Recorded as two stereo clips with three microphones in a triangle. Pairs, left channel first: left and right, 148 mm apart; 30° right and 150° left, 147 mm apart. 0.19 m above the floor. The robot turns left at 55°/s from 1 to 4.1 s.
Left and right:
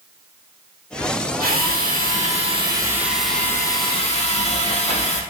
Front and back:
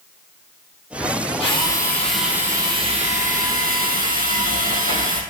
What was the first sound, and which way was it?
A drill, 80° right.